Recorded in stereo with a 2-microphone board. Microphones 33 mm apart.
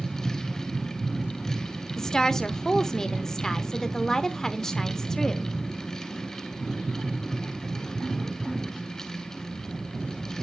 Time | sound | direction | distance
2.0 | a woman speaking | 15° left (ahead or behind) | 1.0 m